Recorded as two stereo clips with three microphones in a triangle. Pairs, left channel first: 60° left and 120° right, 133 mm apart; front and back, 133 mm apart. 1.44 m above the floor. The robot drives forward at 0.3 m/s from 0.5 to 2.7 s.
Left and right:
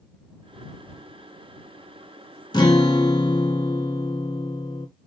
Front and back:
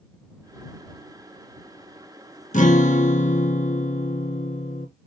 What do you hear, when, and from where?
2.5 s a guitar: 5° left, 1.0 m